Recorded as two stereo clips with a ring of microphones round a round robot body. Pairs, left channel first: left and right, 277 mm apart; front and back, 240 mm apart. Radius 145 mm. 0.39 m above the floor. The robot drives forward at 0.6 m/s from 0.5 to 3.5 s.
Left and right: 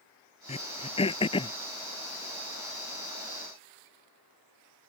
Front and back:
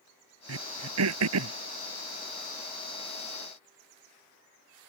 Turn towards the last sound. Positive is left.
turn(degrees=170)